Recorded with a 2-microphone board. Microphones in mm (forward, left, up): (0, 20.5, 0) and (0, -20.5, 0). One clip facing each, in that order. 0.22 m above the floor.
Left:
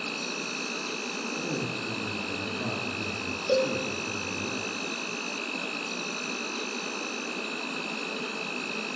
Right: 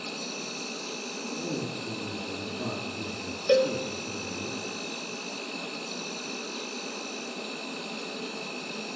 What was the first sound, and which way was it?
An insect, 50° left (ahead or behind).